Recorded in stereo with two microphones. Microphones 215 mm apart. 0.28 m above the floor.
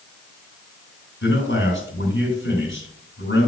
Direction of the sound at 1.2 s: 65° left (ahead or behind).